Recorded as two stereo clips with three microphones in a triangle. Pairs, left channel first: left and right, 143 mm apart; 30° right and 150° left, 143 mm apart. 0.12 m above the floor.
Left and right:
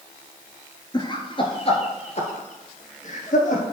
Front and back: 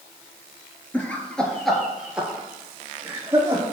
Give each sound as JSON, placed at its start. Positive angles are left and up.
{"t": 0.9, "sound": "laughter", "azimuth_deg": 45, "distance_m": 1.6}